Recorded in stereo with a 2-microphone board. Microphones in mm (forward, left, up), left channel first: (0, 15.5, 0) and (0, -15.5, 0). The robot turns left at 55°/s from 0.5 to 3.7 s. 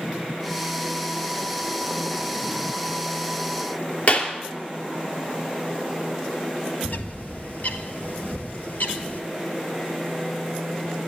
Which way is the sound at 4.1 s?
50° left (ahead or behind).